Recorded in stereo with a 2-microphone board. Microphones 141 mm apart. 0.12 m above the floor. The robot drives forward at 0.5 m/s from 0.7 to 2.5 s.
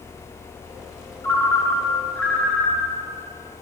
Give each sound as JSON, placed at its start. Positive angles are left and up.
{"t": 1.2, "sound": "a ringtone", "side_deg": 15, "distance_m": 0.7}